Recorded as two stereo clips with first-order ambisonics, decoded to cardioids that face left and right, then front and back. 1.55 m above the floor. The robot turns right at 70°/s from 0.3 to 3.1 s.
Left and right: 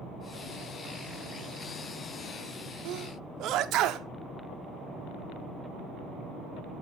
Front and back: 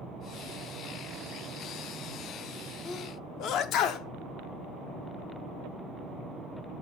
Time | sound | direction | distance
2.9 | a sneeze | 60° right | 0.6 m